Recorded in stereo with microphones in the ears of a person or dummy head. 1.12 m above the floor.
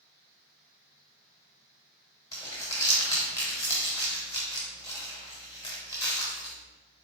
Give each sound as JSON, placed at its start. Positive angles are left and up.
{"t": 2.3, "sound": "crumpling", "side_deg": 15, "distance_m": 1.2}